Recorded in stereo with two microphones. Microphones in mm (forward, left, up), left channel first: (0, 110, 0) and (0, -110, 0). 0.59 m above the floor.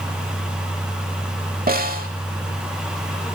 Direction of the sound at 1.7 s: 40° right (ahead or behind).